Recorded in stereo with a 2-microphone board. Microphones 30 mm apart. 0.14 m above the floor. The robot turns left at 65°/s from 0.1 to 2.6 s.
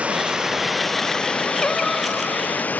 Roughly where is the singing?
Ahead left.